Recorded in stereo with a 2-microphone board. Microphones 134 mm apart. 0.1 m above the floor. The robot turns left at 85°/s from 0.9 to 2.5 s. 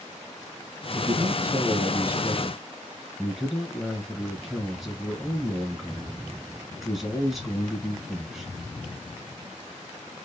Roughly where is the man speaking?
Centre.